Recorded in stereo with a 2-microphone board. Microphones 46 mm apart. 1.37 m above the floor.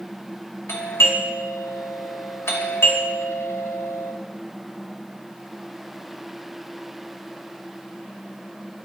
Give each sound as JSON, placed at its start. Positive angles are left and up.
{"t": 0.7, "sound": "a doorbell", "side_deg": 75, "distance_m": 3.0}